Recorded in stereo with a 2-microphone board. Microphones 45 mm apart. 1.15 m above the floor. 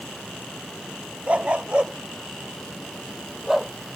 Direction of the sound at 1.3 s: 30° right (ahead or behind).